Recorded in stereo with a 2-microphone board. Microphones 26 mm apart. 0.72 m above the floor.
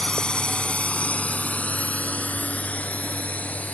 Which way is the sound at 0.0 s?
35° left (ahead or behind).